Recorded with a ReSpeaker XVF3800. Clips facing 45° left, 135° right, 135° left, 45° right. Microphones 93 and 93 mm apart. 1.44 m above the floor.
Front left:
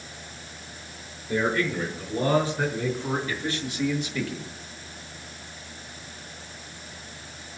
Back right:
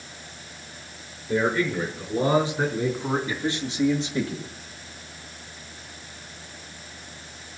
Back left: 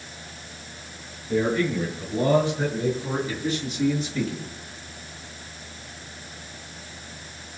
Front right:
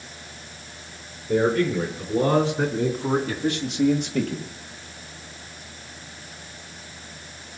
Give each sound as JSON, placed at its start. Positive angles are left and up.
{"t": 1.3, "sound": "a man speaking", "azimuth_deg": -55, "distance_m": 5.0}